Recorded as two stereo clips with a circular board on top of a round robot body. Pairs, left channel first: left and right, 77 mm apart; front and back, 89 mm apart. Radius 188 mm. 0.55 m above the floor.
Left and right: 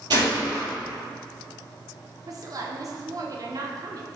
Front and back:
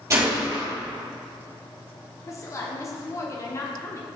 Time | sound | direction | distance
0.1 | a gunshot | 120° right | 3 m
2.3 | a woman speaking | 55° right | 1.6 m